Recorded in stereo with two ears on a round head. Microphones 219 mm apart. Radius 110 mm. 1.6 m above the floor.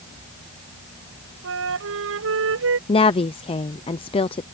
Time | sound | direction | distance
1.4 | a flute | 60° right (ahead or behind) | ?
2.9 | a woman speaking | 25° left (ahead or behind) | ?